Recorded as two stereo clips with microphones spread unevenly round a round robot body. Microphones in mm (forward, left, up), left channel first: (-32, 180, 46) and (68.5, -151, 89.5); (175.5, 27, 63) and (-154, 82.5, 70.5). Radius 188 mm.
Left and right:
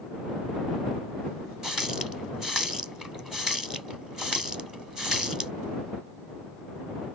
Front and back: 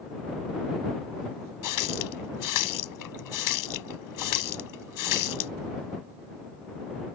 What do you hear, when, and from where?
1.6 s a running tap: 15° left